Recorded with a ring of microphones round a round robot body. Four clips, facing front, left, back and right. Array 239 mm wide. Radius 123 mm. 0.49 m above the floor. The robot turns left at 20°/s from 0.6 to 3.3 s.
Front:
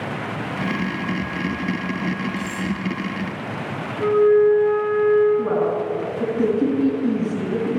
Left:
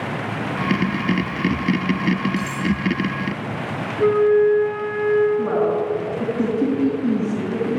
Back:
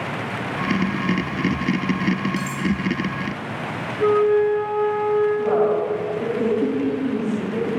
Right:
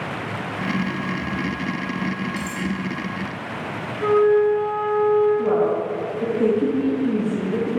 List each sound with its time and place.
2.4 s cutlery clinking: 175° left, 4 m; by 2.7 s 170° left, 4 m
4.0 s a flute: 95° left, 2 m
5.4 s a woman speaking: 50° left, 5.5 m